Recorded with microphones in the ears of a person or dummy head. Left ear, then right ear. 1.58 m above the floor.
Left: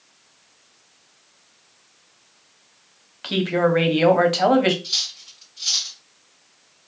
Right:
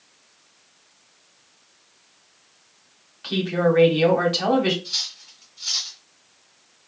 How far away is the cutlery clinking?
About 1.6 m.